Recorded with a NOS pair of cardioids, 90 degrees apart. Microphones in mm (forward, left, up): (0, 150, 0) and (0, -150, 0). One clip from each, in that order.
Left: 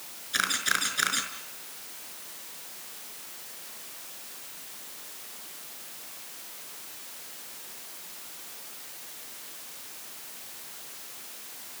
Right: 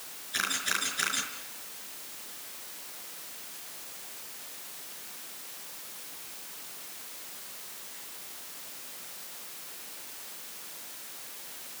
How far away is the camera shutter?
About 5 m.